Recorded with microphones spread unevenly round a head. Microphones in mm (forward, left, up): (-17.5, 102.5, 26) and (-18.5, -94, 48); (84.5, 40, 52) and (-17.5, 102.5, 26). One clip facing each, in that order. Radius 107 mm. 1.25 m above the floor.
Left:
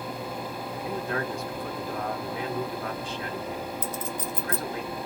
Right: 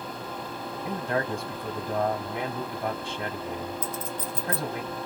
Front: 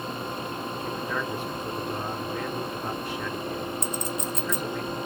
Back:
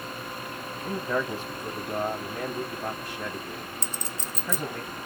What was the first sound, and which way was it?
A man speaking, 155° right.